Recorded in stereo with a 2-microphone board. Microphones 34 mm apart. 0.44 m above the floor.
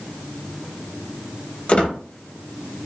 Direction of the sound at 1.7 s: 40° left (ahead or behind).